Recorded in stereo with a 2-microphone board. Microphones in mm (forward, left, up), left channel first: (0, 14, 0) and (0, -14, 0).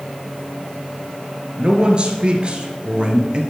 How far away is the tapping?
I don't hear tapping.